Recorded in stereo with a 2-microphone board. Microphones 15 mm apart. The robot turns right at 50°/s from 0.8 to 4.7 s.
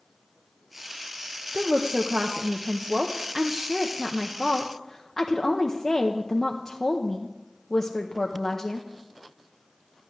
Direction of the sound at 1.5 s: 130° right.